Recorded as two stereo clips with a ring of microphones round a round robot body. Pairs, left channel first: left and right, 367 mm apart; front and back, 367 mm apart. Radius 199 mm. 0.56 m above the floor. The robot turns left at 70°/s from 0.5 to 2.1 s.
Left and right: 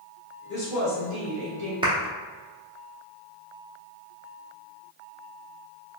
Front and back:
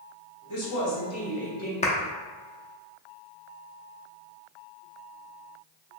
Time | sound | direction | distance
0.5 | a woman speaking | 15° left | 1.3 m
1.8 | a clap | 35° right | 0.6 m